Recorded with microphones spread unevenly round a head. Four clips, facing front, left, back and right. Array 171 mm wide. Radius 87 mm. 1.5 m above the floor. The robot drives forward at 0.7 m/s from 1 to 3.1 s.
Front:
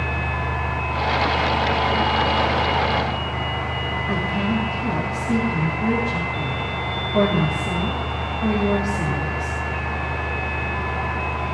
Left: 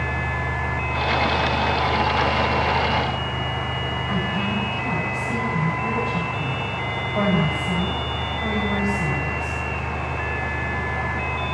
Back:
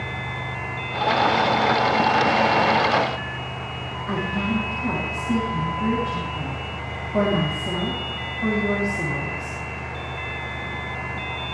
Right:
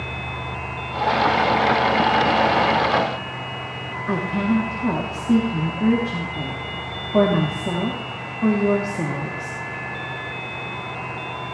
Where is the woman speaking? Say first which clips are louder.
Right 7 dB, front 1 dB; 90° right, 3 m.